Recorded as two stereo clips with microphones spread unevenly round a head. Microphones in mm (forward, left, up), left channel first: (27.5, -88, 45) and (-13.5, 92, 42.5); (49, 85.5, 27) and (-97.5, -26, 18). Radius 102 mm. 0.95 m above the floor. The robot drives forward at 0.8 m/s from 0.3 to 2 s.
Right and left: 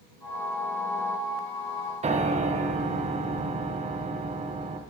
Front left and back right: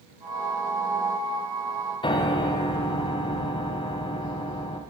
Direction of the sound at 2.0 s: 85° left.